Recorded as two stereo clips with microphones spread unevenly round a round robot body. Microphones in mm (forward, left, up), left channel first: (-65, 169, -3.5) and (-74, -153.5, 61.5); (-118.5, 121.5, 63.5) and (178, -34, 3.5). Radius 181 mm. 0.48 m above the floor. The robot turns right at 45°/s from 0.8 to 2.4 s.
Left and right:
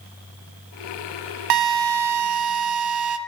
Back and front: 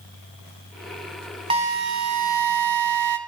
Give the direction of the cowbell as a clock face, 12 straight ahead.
I don't hear a cowbell.